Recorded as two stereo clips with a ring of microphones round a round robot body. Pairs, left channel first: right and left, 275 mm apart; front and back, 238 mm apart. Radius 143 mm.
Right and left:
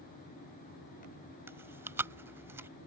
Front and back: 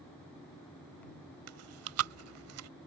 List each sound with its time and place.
1.5 s chewing: 170° left